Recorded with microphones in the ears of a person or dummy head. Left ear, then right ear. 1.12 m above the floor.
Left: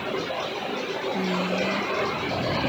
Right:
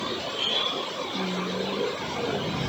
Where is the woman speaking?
25° left (ahead or behind).